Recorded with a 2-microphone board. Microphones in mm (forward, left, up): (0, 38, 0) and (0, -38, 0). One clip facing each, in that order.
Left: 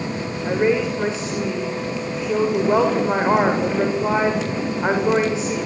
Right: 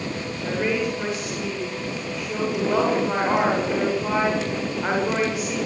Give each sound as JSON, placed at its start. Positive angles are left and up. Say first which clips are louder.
{"t": 0.5, "sound": "a woman speaking", "louder": "left 5 dB", "side_deg": 25, "distance_m": 9.5}